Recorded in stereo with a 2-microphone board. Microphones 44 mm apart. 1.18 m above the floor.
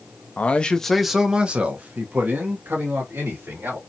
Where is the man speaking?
35° left (ahead or behind), 0.5 m; by 3.8 s 55° right (ahead or behind), 1.7 m.